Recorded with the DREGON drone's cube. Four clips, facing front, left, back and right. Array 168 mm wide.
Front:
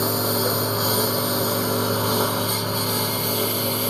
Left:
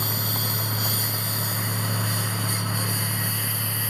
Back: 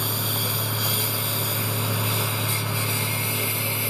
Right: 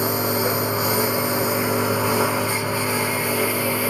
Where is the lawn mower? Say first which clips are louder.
Right 10 dB, front 8 dB; 55° right; by 3.9 s 65° right.